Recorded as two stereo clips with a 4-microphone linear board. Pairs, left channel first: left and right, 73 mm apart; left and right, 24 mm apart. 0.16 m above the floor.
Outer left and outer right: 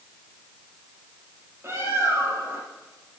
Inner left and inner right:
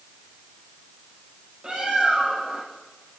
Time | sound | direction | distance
1.6 | a bird | 35° right (ahead or behind) | 5.5 m